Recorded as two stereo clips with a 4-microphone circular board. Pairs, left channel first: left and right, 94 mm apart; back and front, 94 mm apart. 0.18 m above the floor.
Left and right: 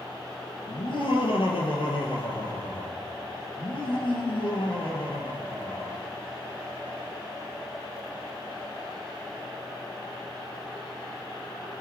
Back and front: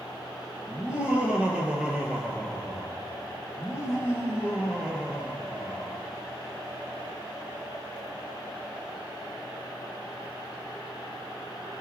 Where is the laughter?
80° left, 4.5 m.